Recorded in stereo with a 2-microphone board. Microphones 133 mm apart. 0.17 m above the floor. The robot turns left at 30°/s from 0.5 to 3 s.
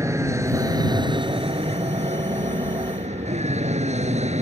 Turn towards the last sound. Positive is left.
turn(degrees=-55)  # may be behind; listen again after turning